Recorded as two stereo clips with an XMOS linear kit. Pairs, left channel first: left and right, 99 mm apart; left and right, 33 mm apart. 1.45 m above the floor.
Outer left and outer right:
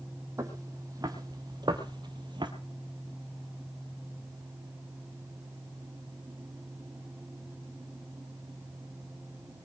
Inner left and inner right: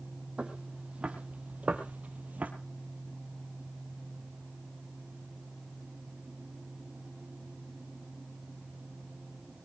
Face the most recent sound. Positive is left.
turn(degrees=-50)  # may be behind; listen again after turning